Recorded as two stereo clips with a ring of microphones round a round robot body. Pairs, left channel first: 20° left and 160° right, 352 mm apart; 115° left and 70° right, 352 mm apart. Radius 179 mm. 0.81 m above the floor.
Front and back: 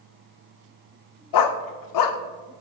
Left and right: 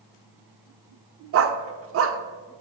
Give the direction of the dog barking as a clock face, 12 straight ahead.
12 o'clock.